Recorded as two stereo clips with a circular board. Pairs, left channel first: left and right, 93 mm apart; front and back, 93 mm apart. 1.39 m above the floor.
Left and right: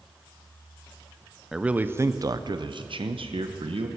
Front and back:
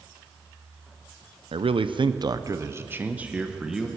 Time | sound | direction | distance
1.5 | a man speaking | 175° right | 0.7 m